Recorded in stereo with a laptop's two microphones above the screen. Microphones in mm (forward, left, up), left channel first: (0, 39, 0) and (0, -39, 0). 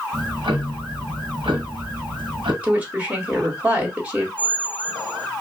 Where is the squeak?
70° right (ahead or behind), 1.2 m.